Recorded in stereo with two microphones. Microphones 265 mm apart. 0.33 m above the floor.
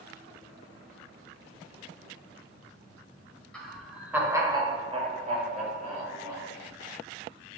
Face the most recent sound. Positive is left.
turn(degrees=-25)  # may be behind; listen again after turning